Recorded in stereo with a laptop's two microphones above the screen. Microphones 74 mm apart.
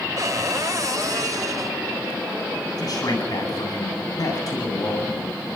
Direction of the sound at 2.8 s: 60° left (ahead or behind).